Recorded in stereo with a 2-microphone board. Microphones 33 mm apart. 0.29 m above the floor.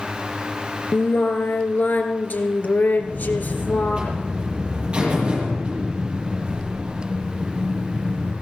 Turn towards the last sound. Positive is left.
turn(degrees=-30)  # may be behind; listen again after turning